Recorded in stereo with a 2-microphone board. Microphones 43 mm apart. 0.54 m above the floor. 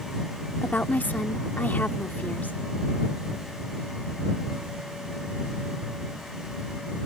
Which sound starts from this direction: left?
A woman speaking, at 0.6 s.